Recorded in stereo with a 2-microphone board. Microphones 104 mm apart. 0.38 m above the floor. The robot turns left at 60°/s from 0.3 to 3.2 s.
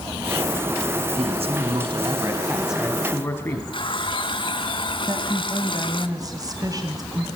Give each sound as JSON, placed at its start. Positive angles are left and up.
{"t": 1.2, "sound": "a man speaking", "azimuth_deg": -80, "distance_m": 4.0}
{"t": 3.7, "sound": "a running tap", "side_deg": 50, "distance_m": 2.0}
{"t": 5.1, "sound": "a woman speaking", "side_deg": -35, "distance_m": 2.5}